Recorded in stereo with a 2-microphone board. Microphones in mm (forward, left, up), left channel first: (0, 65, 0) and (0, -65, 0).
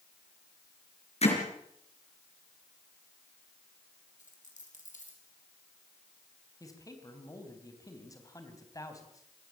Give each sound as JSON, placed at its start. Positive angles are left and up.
{"t": 1.2, "sound": "hammering", "side_deg": 55, "distance_m": 5.0}
{"t": 4.2, "sound": "a dropped coin", "side_deg": 75, "distance_m": 5.0}
{"t": 6.6, "sound": "a man speaking", "side_deg": 25, "distance_m": 3.5}